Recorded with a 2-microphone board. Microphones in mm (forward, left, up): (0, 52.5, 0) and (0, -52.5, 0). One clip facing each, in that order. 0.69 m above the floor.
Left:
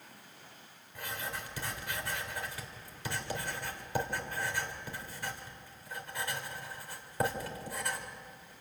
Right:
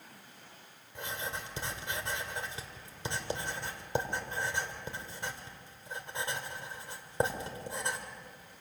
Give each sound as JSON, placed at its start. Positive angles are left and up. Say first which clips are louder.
{"t": 0.9, "sound": "writing", "louder": "right 1 dB", "side_deg": -25, "distance_m": 2.5}